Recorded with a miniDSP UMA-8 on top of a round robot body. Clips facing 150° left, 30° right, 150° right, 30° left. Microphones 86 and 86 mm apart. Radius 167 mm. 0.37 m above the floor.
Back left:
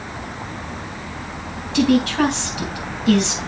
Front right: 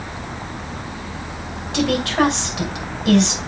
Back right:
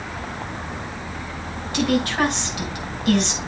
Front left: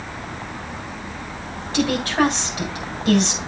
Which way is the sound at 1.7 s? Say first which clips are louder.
Back left 2 dB, front left 1 dB; 20° right.